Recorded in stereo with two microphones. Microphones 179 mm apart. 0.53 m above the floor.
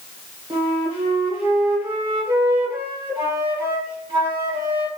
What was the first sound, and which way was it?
A flute, 30° right (ahead or behind).